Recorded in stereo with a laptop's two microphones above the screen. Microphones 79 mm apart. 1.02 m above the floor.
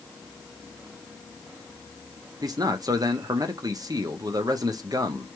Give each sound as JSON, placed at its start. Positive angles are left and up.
{"t": 2.4, "sound": "a man speaking", "side_deg": -50, "distance_m": 0.7}